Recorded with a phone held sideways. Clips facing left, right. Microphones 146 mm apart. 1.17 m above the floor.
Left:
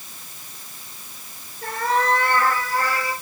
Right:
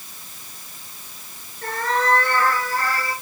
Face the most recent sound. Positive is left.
turn(degrees=10)  # may be behind; listen again after turning